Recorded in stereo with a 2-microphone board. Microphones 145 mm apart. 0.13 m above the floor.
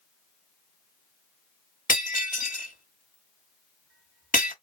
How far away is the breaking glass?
About 1.5 m.